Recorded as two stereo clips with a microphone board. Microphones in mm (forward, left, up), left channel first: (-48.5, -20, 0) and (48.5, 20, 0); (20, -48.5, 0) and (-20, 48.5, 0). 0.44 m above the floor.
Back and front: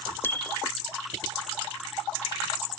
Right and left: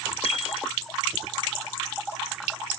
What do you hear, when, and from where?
0.2 s a bicycle bell: 85° right